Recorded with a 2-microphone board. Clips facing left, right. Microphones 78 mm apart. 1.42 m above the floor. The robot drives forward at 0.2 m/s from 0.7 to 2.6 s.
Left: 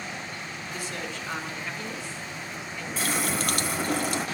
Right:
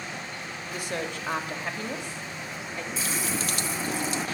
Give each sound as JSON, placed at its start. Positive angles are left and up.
{"t": 0.7, "sound": "a woman speaking", "side_deg": -55, "distance_m": 2.5}
{"t": 3.0, "sound": "a running tap", "side_deg": 50, "distance_m": 1.2}